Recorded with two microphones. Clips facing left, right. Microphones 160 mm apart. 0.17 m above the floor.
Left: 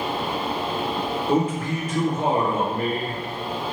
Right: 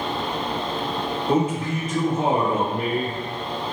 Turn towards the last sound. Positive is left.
turn(degrees=-25)  # may be behind; listen again after turning